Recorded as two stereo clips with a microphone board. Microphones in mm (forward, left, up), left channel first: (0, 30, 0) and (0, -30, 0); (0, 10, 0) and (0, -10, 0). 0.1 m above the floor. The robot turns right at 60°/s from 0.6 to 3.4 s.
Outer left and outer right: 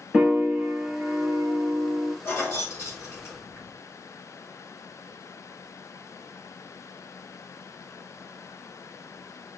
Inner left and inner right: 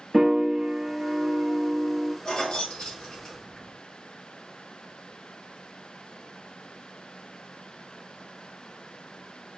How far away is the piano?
About 0.7 m.